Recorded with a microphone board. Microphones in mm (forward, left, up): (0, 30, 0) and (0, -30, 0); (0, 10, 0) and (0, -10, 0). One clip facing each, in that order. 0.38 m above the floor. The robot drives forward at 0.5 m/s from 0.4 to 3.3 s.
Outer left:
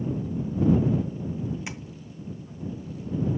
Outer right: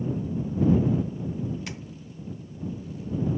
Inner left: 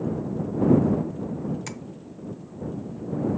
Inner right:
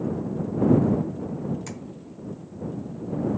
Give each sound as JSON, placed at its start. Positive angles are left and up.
{"t": 1.7, "sound": "tapping", "side_deg": 20, "distance_m": 0.8}